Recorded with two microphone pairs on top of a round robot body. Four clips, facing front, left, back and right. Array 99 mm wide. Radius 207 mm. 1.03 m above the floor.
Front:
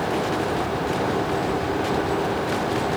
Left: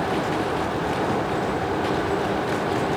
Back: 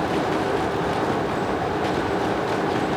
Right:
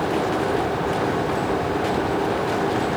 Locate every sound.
Only background noise.